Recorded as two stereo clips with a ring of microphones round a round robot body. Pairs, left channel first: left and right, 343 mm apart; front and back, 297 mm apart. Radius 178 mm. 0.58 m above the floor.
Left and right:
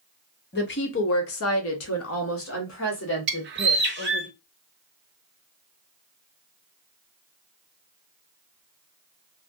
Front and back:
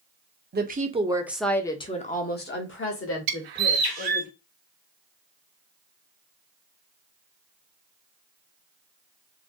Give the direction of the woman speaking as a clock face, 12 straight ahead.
7 o'clock.